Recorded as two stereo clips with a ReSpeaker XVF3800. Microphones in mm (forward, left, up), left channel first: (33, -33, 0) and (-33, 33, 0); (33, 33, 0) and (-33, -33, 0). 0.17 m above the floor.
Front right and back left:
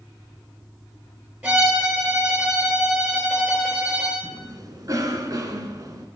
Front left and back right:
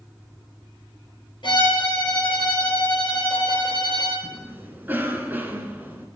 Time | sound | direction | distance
1.4 | a violin | 70° left | 3 m
4.2 | a cough | 165° left | 1.5 m